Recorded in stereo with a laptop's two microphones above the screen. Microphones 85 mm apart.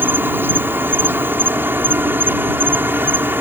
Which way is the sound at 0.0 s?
25° right (ahead or behind).